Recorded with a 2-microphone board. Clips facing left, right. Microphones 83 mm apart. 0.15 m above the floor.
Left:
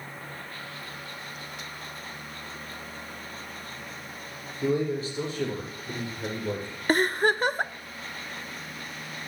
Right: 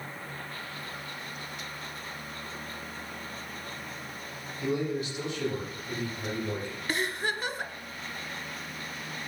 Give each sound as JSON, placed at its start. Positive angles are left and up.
{"t": 4.6, "sound": "a man speaking", "side_deg": 30, "distance_m": 6.5}
{"t": 6.9, "sound": "a giggle", "side_deg": 50, "distance_m": 0.6}